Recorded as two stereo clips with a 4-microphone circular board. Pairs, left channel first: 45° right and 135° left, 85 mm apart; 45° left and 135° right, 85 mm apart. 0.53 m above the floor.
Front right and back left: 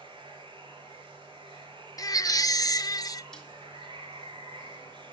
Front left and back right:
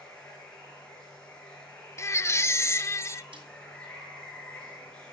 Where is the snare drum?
130° right, 5 m.